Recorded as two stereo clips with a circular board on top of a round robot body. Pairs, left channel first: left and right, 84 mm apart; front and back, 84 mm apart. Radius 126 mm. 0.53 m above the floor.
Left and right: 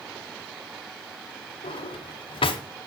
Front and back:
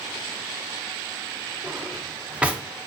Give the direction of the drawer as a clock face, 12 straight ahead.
9 o'clock.